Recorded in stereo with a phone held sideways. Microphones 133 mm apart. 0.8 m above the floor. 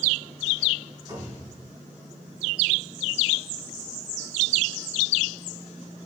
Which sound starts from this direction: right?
A cupboard door, at 1.1 s.